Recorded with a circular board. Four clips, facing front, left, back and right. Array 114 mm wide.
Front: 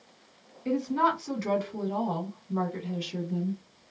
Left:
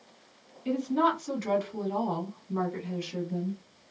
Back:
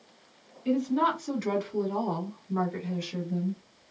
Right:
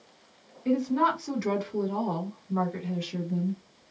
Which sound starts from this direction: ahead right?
A woman speaking, at 0.7 s.